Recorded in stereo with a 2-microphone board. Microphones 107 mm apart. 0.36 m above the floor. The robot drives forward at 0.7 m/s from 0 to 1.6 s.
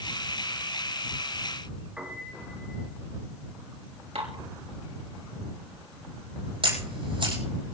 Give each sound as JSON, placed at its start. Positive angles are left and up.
{"t": 2.0, "sound": "a piano", "side_deg": -10, "distance_m": 6.5}
{"t": 4.2, "sound": "dishes clattering", "side_deg": -80, "distance_m": 4.0}
{"t": 6.6, "sound": "a camera shutter", "side_deg": -55, "distance_m": 7.5}